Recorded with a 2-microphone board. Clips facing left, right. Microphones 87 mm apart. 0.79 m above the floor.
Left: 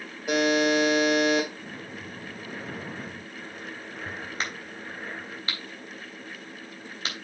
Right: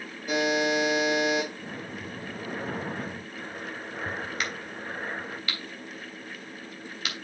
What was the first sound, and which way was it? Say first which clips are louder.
A buzzer: left 3 dB; 85° left.